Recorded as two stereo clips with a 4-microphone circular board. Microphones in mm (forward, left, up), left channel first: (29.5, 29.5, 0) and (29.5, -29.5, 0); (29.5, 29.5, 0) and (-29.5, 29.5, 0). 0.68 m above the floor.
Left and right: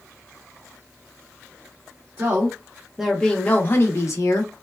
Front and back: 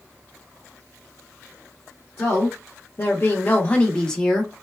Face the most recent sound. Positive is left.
turn(degrees=85)